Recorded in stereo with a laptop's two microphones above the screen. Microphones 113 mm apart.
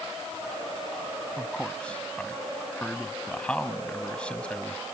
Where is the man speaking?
10° left (ahead or behind).